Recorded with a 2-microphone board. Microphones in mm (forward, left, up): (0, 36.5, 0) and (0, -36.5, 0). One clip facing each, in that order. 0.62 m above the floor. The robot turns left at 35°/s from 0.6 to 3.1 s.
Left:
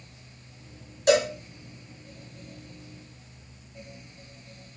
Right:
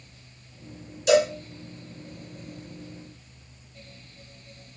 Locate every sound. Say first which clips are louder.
1.1 s a cowbell: right 2 dB; 45° left (ahead or behind), 1.6 m